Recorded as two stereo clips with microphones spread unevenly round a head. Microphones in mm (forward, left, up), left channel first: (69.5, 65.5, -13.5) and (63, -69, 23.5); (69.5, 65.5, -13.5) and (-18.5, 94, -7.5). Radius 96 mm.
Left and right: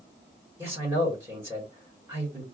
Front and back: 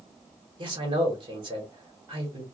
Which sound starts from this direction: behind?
A man speaking, at 0.6 s.